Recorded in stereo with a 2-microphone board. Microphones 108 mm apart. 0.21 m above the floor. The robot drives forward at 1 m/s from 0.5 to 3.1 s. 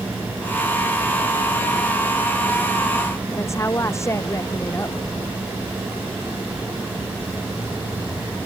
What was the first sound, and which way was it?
A woman speaking, 25° left (ahead or behind).